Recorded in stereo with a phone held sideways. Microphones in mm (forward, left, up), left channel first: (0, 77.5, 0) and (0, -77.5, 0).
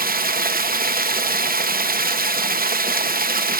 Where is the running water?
70° right (ahead or behind), 0.7 m.